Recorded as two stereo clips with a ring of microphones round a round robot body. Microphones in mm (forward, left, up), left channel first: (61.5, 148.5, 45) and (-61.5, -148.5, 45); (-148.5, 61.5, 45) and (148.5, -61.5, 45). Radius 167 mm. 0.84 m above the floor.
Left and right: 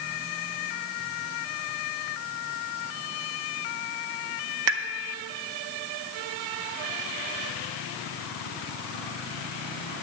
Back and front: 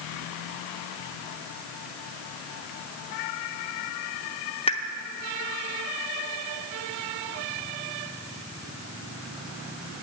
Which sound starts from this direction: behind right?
A pop, at 4.7 s.